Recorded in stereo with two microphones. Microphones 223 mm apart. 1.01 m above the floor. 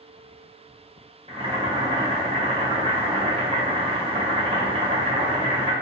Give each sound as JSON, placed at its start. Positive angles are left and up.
{"t": 1.3, "sound": "boiling", "side_deg": -25, "distance_m": 0.8}